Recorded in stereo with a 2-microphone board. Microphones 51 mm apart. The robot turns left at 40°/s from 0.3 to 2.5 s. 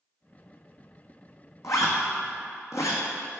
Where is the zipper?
70° left (ahead or behind), 1.2 m.